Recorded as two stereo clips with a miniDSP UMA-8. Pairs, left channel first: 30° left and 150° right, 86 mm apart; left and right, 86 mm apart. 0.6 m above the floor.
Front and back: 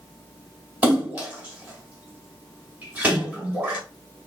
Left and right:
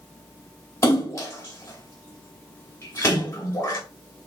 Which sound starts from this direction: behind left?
A splash, at 0.8 s.